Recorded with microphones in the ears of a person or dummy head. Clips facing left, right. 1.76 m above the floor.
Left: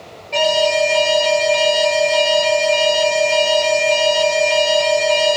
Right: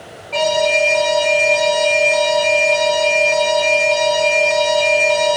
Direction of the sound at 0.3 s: 15° left (ahead or behind).